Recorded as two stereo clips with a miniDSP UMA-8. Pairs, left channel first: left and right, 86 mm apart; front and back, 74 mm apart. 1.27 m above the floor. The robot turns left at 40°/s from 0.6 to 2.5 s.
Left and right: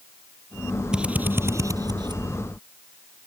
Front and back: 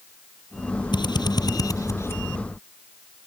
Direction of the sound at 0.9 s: 10° right.